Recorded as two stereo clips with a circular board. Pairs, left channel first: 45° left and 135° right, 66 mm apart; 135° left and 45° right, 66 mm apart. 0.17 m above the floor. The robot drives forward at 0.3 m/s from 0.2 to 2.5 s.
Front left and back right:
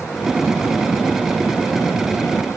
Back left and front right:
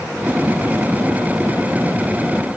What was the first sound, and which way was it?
Only background noise.